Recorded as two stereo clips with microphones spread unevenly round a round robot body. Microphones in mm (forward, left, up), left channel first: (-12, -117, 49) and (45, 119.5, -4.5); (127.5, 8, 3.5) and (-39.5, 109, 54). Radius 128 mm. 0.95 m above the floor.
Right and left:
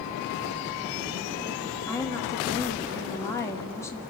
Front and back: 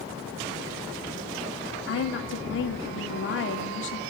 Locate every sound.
1.9 s a woman speaking: 20° right, 2 m